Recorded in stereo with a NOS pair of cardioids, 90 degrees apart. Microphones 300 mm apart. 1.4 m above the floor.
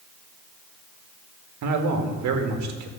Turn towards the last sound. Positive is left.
turn(degrees=-65)